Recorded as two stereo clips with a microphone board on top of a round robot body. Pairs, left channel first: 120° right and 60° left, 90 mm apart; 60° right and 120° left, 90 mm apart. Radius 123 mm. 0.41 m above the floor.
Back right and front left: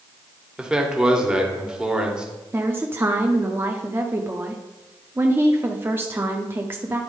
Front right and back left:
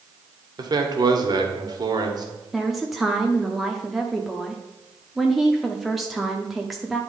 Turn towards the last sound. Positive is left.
turn(degrees=35)